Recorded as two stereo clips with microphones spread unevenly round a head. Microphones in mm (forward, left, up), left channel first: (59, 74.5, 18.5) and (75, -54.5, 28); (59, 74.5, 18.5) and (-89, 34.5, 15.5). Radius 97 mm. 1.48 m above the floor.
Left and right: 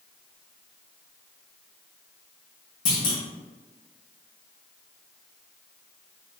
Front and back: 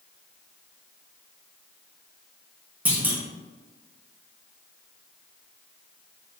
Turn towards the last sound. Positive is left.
turn(degrees=115)